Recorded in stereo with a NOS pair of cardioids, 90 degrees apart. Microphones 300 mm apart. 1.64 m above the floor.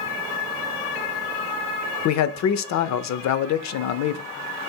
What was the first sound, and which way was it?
A man speaking, 65° left.